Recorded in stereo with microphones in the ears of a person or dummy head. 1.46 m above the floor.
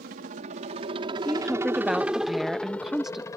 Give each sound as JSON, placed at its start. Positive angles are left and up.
{"t": 0.0, "sound": "a helicopter", "side_deg": -45}
{"t": 1.2, "sound": "a woman speaking", "side_deg": 0}